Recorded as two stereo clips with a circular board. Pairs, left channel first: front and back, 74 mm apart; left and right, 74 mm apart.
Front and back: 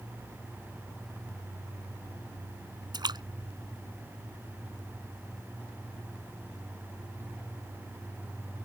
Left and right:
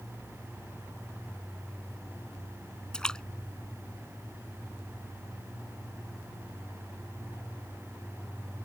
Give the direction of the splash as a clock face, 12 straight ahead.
6 o'clock.